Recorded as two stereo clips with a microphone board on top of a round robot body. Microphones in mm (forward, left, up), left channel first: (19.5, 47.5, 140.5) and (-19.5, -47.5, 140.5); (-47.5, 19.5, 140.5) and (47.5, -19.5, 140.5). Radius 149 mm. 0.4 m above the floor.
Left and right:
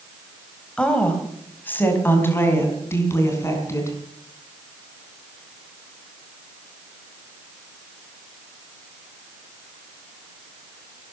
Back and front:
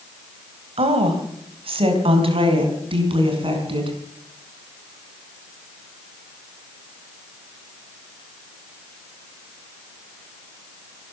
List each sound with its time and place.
0.8 s a woman speaking: 10° right, 3 m; by 4.0 s 5° left, 5.5 m